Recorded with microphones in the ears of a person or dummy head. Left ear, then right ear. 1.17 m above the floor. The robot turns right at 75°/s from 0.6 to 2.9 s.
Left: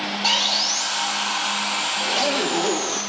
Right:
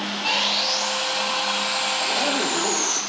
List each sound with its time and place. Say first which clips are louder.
0.2 s sawing: left 2 dB; 70° left, 4 m; by 3.0 s 120° right, 4 m
2.0 s a zipper: left 1 dB; straight ahead, 0.6 m; by 3.0 s 70° left, 0.6 m